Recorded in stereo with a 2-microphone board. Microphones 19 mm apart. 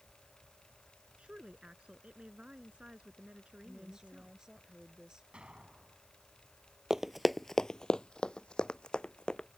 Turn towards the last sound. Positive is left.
turn(degrees=55)  # may be behind; listen again after turning